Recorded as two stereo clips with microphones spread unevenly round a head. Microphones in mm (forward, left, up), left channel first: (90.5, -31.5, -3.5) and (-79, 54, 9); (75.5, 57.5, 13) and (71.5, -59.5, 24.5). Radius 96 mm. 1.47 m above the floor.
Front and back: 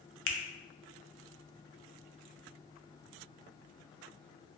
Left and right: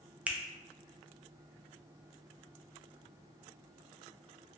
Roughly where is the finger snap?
Ahead.